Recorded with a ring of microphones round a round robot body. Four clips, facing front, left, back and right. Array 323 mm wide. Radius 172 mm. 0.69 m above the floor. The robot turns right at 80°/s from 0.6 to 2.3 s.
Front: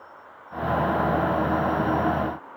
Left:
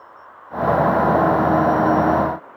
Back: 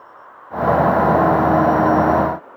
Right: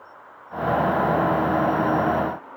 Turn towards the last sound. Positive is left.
No sound to turn to.